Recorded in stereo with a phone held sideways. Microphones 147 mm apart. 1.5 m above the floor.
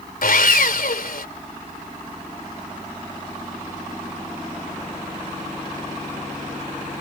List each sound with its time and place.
0.2 s sawing: 75° left (ahead or behind)